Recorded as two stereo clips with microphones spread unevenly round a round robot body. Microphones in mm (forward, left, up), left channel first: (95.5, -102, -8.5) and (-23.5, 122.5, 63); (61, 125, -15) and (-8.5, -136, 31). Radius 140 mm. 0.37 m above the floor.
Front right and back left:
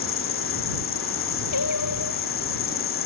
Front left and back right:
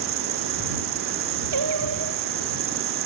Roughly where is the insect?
Right.